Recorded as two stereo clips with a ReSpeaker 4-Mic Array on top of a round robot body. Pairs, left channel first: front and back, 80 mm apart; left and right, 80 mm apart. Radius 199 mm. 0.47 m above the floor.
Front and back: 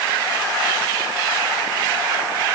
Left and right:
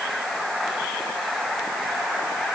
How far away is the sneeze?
No sneeze in this recording.